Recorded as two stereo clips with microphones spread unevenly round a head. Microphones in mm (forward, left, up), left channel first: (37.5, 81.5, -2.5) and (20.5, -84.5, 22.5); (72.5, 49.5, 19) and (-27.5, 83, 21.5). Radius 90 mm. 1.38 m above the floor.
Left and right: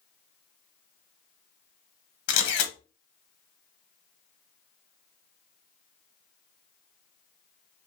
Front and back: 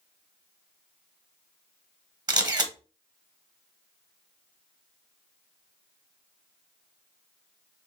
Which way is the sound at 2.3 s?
115° left.